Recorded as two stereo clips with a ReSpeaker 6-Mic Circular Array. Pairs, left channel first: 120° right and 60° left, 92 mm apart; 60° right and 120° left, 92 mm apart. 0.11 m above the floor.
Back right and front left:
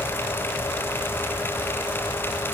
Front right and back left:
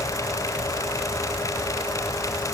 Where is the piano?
No piano in this recording.